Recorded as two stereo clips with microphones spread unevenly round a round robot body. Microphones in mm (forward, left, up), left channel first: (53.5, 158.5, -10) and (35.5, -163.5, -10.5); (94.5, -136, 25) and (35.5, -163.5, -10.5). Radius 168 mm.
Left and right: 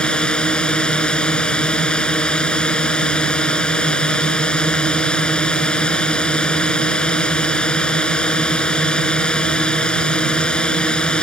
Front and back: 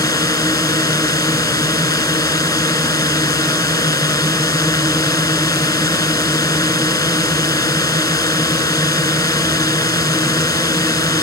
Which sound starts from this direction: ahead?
A drone, at 0.0 s.